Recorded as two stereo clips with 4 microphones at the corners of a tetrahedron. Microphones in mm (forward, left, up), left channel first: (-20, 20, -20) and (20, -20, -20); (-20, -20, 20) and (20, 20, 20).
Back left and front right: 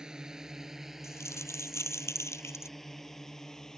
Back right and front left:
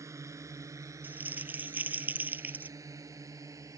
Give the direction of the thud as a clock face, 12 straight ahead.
No thud in this recording.